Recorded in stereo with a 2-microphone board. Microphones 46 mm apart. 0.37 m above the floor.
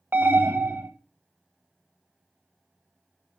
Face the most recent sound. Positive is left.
turn(degrees=-55)  # may be behind; listen again after turning